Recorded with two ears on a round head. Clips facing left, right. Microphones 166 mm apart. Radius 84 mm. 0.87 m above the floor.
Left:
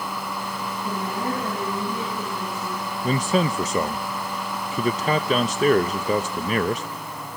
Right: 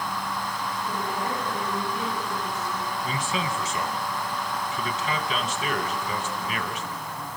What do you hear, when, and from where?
0.8 s a woman speaking: 70° left (ahead or behind), 8 m; by 2.8 s 65° left (ahead or behind), 8 m
3.0 s a man speaking: 35° left (ahead or behind), 0.6 m